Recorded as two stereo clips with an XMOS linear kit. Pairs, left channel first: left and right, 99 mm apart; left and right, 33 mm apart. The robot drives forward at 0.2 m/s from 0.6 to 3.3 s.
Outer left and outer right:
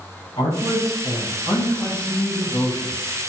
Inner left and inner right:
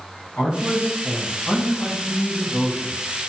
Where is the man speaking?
70° left (ahead or behind), 0.9 m; by 3.0 s 50° left (ahead or behind), 1.1 m.